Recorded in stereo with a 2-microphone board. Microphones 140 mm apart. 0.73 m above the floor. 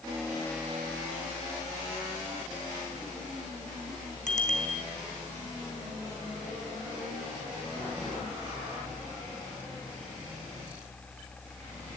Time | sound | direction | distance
4.3 | a bicycle bell | 60° left (ahead or behind) | 4.5 m